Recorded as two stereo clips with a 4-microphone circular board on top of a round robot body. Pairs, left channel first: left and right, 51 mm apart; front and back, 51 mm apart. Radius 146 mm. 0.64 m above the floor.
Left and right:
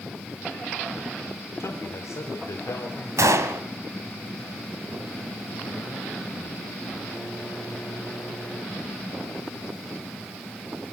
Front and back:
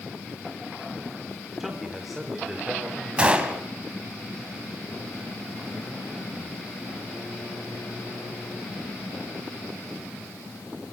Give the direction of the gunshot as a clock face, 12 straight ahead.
4 o'clock.